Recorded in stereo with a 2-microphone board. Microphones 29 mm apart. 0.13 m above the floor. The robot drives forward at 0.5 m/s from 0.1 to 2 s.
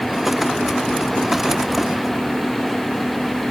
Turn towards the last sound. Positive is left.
No sound to turn to.